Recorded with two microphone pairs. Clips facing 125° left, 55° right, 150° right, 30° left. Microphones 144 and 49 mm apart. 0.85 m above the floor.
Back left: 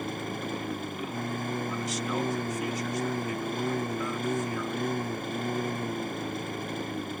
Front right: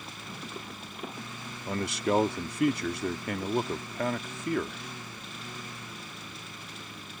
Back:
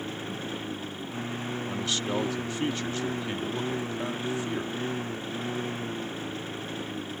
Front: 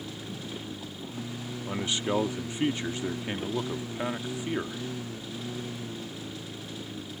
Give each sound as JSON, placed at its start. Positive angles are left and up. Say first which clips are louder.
{"t": 0.0, "sound": "a lawn mower", "louder": "back left 10 dB, back 4 dB", "azimuth_deg": 160}
{"t": 1.7, "sound": "a man speaking", "louder": "front right 3 dB, front 3 dB", "azimuth_deg": -40}